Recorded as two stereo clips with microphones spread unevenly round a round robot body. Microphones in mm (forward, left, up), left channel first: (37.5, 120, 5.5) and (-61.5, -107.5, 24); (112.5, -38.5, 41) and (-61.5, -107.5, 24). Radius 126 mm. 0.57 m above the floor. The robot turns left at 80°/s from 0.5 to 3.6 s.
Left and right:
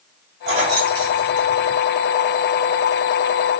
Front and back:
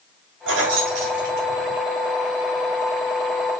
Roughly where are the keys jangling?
Behind.